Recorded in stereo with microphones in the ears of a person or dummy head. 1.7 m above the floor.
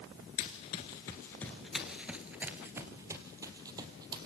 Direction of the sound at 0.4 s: 30° left (ahead or behind).